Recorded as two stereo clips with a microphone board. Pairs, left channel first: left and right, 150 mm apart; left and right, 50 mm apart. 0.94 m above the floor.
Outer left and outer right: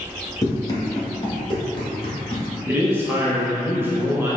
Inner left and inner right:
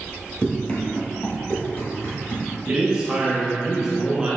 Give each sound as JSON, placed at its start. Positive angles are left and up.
{"t": 0.4, "sound": "running footsteps", "side_deg": 20, "distance_m": 1.1}
{"t": 2.7, "sound": "a man speaking", "side_deg": -15, "distance_m": 0.7}